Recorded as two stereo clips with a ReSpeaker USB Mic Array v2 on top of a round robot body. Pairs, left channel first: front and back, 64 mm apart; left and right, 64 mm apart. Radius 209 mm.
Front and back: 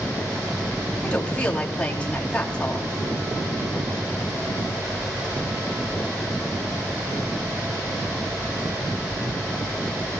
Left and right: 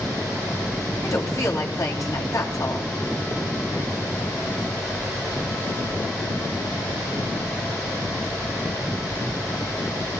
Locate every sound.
1.0 s a woman speaking: 75° left, 3 m